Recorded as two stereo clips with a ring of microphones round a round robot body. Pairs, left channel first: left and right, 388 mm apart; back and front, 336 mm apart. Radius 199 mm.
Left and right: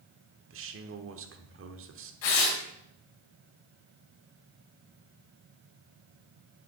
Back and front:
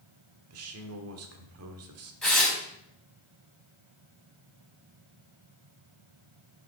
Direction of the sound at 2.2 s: 90° left.